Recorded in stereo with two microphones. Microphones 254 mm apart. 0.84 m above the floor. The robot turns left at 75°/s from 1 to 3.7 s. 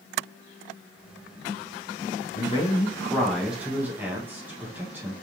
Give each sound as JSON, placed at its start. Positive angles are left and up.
{"t": 2.4, "sound": "a man speaking", "side_deg": 20, "distance_m": 0.7}